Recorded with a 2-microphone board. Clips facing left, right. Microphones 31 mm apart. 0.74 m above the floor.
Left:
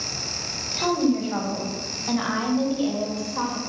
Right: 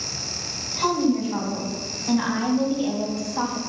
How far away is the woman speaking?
About 4.5 m.